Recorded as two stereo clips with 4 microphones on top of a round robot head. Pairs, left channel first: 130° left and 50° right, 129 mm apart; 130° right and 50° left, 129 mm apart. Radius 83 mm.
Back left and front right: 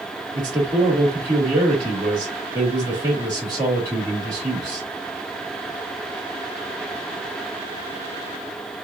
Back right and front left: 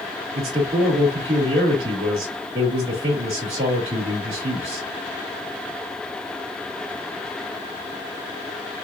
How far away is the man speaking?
About 2.5 m.